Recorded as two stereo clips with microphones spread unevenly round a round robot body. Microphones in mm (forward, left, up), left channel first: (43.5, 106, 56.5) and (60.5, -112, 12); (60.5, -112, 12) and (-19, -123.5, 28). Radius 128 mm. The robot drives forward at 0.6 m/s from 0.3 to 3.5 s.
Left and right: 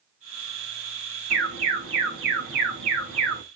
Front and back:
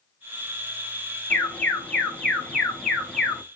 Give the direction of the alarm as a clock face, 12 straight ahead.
2 o'clock.